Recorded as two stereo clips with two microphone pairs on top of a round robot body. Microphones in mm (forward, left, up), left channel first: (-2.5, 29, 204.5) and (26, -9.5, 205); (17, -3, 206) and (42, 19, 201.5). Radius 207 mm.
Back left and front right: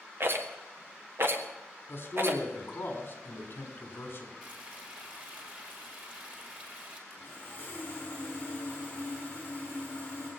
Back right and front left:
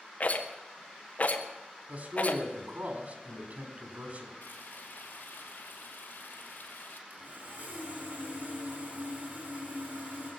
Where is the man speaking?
80° left, 4.5 m.